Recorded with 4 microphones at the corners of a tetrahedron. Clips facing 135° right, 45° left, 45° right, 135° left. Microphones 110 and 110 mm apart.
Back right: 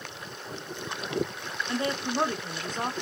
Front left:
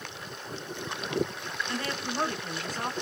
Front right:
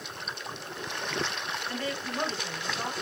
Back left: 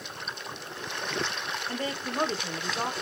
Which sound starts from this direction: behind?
A woman speaking, at 1.7 s.